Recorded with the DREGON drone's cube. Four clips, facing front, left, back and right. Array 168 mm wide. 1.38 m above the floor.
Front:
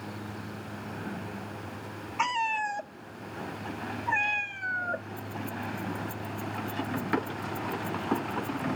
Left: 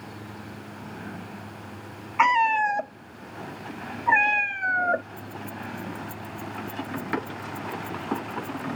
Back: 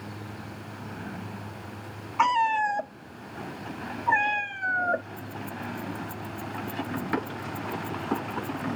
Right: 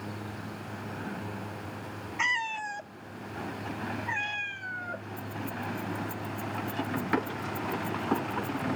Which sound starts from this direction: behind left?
A cat meowing, at 2.2 s.